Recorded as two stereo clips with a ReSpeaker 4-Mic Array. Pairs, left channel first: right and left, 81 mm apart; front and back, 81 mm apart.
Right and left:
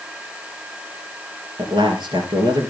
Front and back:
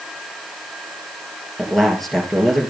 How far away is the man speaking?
About 3 m.